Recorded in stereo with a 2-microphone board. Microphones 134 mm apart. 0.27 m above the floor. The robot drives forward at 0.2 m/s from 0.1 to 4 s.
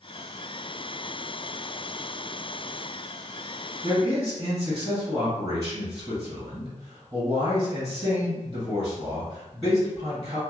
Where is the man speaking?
30° right (ahead or behind), 1.6 m.